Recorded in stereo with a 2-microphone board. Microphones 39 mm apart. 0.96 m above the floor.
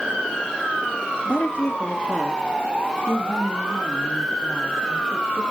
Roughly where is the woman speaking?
Left.